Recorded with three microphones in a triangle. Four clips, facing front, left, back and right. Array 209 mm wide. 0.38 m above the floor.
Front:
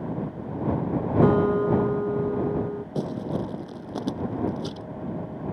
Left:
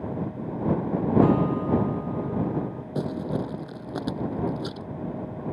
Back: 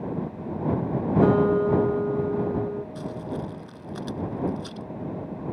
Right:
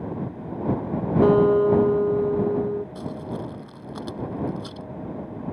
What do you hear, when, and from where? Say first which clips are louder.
1.2 s a guitar: right 6 dB, even; 90° right
3.0 s crumpling: left 3 dB, front 4 dB; 35° left